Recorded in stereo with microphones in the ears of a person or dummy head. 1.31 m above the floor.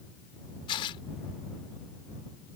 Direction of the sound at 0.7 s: 25° left (ahead or behind).